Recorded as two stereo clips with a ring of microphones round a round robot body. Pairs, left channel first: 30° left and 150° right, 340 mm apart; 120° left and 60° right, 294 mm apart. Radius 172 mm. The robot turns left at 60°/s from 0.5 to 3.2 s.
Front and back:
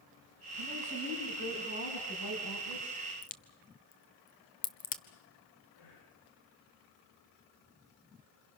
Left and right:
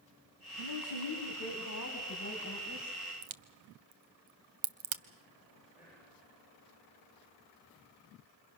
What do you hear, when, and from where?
0.6 s a man speaking: 160° left, 3.5 m; by 3.0 s 15° left, 3.5 m
3.2 s a crack: 35° right, 1.1 m
5.8 s whispering: 25° left, 9.5 m